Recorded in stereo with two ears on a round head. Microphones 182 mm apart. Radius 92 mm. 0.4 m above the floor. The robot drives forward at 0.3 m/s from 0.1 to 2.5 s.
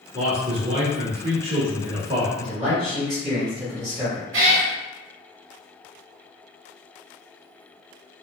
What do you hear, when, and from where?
0.1 s a man speaking: 30° right (ahead or behind), 0.9 m; by 2.3 s 25° right (ahead or behind), 1.1 m
2.4 s a man speaking: 35° right (ahead or behind), 1.5 m
4.3 s a cat meowing: 65° right (ahead or behind), 0.9 m